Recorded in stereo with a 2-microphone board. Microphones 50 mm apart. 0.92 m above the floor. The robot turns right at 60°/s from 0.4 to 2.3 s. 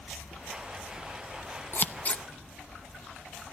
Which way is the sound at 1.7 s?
50° left (ahead or behind).